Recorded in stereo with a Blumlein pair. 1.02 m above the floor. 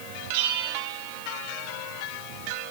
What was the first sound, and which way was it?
A bell, 50° right.